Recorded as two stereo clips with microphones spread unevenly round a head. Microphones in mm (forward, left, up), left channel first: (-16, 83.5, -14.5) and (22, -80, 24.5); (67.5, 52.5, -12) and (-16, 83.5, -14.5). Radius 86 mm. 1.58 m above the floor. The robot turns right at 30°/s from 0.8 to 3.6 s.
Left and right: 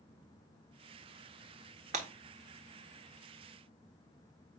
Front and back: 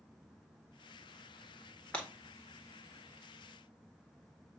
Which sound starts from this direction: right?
Breaking glass, at 1.9 s.